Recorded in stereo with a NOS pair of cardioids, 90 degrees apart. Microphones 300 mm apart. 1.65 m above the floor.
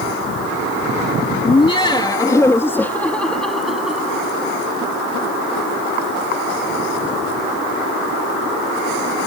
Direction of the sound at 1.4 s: 20° left.